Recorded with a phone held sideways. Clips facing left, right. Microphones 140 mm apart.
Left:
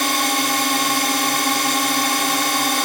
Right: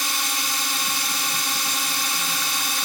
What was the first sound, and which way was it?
A drone, 70° left (ahead or behind).